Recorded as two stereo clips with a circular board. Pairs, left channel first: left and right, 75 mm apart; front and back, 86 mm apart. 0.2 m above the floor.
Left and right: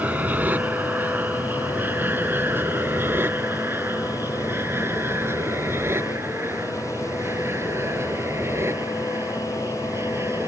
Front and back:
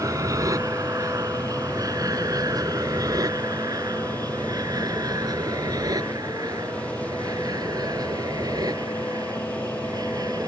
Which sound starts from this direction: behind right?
An aircraft, at 0.0 s.